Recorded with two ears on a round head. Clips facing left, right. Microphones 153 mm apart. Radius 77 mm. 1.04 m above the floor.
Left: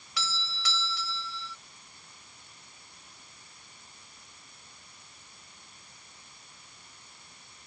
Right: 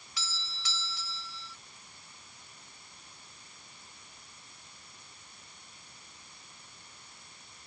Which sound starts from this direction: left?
A doorbell, at 0.2 s.